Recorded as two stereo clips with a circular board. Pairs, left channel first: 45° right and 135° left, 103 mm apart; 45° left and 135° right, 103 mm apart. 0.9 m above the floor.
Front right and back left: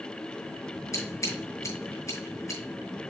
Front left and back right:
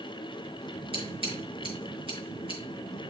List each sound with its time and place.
0.9 s scissors: 105° right, 5.5 m